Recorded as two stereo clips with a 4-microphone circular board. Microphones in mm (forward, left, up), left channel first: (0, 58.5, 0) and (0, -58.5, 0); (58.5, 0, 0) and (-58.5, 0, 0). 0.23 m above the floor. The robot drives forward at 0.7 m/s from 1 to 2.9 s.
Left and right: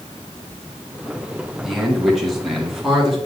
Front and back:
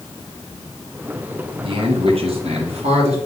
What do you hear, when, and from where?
1.6 s a man speaking: straight behind, 1.8 m